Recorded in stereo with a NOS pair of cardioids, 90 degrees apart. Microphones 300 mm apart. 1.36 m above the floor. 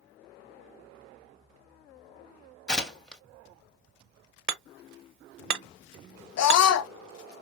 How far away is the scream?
About 0.5 m.